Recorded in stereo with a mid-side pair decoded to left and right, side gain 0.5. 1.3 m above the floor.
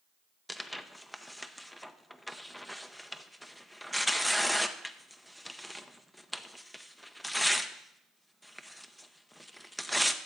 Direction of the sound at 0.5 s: Straight ahead.